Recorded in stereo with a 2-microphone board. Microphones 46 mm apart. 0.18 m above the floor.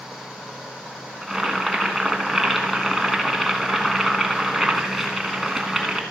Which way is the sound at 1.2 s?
5° right (ahead or behind).